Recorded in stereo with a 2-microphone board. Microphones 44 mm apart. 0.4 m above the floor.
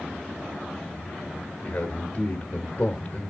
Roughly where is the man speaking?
Left.